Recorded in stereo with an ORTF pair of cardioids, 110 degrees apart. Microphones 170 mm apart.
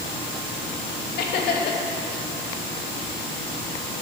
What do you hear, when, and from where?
1.2 s laughter: 65° left, 2.5 m